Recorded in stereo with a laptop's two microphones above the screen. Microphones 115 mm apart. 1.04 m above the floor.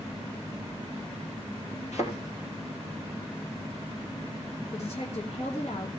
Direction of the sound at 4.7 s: 65° left (ahead or behind).